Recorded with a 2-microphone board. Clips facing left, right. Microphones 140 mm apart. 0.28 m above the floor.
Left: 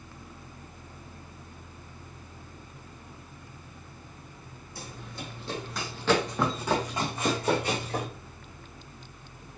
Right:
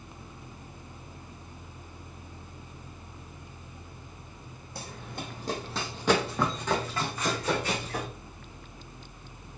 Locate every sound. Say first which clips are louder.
4.8 s running footsteps: right 2 dB; 65° right (ahead or behind), 1.1 m; by 8.1 s 40° left (ahead or behind), 1.7 m